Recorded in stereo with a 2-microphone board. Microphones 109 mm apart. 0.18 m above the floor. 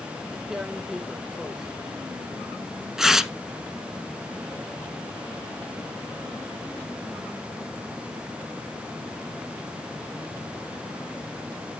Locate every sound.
0.5 s tearing paper: 5° right (ahead or behind), 0.9 m